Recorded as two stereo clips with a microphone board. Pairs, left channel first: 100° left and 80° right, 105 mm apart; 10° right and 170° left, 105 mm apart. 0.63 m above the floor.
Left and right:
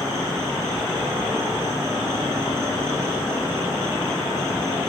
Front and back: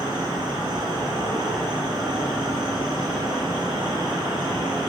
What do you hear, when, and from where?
0.0 s an insect: 140° right, 2.5 m